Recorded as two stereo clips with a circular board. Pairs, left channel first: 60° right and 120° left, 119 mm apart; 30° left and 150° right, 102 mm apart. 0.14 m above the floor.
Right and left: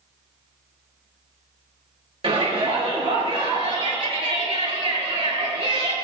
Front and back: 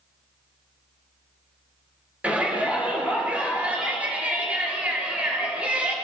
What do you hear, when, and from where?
2.2 s a shout: 135° left, 3 m